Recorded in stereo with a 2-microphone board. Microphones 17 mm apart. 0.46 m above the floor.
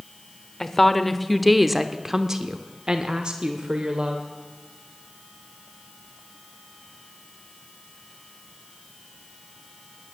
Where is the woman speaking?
15° left (ahead or behind), 1.2 m; by 4.2 s 55° right (ahead or behind), 1.4 m.